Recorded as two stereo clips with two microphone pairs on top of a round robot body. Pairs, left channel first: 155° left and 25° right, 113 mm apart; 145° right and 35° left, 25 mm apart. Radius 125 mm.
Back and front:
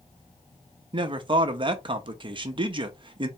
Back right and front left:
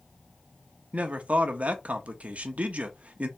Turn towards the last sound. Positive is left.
turn(degrees=10)